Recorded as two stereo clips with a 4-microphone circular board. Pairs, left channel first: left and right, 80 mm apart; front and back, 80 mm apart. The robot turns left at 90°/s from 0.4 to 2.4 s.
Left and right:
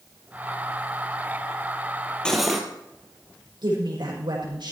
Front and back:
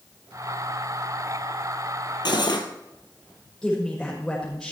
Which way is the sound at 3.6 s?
85° right.